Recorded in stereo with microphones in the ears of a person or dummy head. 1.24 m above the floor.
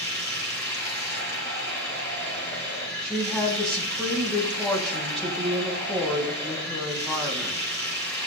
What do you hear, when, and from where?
0.0 s running water: 15° left (ahead or behind), 5 m
3.0 s a woman speaking: centre (ahead or behind), 1.6 m